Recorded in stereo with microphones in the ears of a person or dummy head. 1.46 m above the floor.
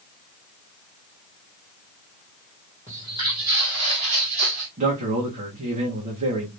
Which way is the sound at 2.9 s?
15° right (ahead or behind).